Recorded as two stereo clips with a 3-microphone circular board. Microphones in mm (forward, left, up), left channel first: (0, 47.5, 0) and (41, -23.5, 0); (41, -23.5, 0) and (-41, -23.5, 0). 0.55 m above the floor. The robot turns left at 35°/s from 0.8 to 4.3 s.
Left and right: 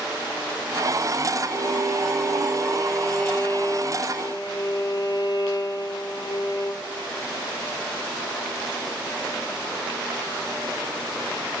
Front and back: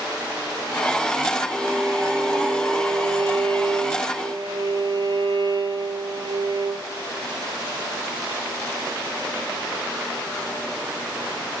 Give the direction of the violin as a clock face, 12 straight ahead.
4 o'clock.